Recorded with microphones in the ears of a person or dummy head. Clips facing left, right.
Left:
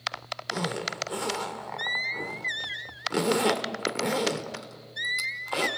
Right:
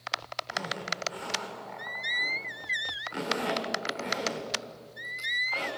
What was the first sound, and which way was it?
A zipper, 55° left (ahead or behind).